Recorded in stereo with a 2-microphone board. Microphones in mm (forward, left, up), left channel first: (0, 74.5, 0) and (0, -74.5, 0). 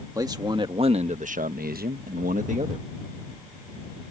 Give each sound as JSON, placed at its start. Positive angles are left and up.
{"t": 0.1, "sound": "a man speaking", "side_deg": -25}